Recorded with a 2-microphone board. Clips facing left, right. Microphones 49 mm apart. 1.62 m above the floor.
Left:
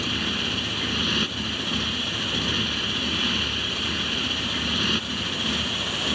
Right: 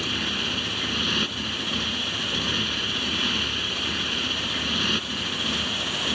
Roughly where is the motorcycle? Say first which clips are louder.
Left 1 dB; centre.